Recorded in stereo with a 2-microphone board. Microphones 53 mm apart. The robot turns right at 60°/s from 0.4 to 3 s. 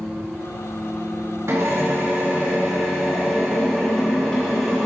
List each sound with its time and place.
1.5 s a drill: 80° right, 2.5 m; by 4.9 s 10° left, 2.5 m